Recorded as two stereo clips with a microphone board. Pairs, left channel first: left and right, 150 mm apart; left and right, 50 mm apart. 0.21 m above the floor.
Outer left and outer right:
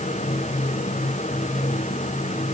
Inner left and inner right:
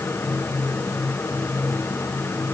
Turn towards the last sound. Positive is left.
No sound to turn to.